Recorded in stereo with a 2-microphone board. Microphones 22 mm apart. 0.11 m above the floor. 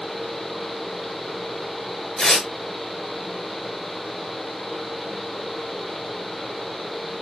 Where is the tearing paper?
35° left (ahead or behind), 1.0 m.